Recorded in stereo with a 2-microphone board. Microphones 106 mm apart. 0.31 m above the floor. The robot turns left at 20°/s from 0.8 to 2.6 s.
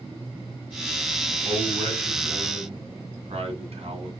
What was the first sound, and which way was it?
A man speaking, 60° right (ahead or behind).